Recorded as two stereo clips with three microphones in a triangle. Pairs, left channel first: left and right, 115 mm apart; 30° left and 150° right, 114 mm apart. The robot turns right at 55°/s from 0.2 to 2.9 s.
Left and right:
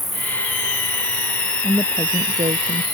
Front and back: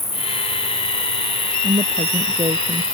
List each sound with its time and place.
0.0 s an insect: straight ahead; by 2.9 s 145° left
1.6 s a woman speaking: 165° right; by 2.8 s 100° right